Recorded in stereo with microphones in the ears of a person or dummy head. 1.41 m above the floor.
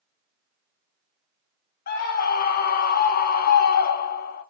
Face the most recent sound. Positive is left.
turn(degrees=50)  # may be behind; listen again after turning